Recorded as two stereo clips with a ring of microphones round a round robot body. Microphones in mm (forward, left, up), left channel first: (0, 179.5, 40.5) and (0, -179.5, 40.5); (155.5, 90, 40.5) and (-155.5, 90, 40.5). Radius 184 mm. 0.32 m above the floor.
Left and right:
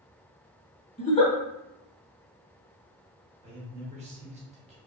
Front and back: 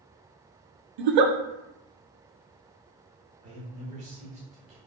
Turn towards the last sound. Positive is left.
turn(degrees=-140)